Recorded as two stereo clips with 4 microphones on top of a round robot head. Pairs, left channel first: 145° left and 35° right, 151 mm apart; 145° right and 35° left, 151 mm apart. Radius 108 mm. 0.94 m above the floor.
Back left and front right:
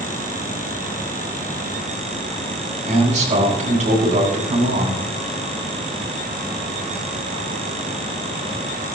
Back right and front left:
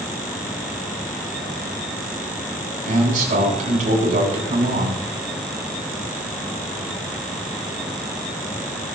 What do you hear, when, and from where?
2.9 s a man speaking: 5° left, 8.5 m